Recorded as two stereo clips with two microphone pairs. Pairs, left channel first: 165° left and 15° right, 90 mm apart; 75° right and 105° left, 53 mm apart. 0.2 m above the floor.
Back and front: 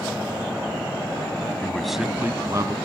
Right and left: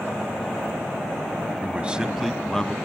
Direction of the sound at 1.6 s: 100° left.